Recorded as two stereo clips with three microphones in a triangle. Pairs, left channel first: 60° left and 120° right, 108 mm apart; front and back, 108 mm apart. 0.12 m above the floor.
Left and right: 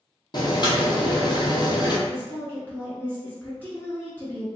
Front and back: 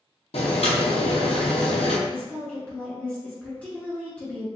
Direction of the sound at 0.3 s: 15° left.